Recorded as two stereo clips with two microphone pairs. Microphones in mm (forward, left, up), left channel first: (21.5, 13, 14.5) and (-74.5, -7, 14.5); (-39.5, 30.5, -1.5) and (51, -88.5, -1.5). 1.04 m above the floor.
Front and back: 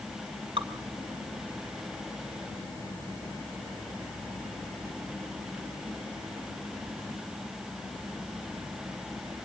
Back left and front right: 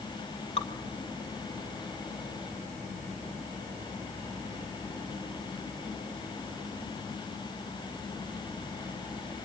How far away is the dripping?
About 2 m.